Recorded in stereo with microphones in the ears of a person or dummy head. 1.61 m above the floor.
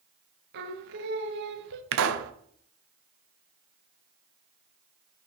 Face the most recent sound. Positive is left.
turn(degrees=-75)  # may be behind; listen again after turning